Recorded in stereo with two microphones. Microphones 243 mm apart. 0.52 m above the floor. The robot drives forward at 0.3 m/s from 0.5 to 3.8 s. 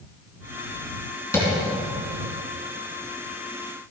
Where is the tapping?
10° left (ahead or behind), 4 m.